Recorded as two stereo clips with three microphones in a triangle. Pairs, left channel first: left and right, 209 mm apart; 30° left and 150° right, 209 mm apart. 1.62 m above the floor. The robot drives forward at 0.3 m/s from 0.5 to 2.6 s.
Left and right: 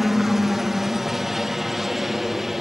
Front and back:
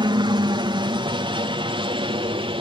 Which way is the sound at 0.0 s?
175° right.